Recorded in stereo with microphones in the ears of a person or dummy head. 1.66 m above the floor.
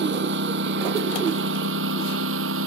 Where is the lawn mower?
65° right (ahead or behind); by 2.7 s 75° right (ahead or behind).